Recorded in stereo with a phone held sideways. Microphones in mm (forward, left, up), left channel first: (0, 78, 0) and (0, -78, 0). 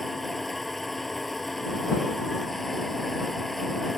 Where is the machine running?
Centre (ahead or behind).